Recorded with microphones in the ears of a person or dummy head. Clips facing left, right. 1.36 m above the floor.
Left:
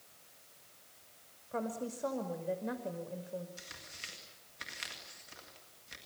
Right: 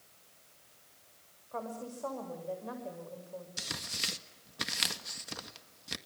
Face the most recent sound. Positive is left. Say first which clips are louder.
# right 10 dB
turn(degrees=-90)